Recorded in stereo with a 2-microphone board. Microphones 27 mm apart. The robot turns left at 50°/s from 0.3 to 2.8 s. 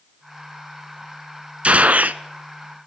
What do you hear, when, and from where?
1.6 s a gunshot: 55° right (ahead or behind), 0.6 m; by 2.2 s 75° right (ahead or behind), 0.6 m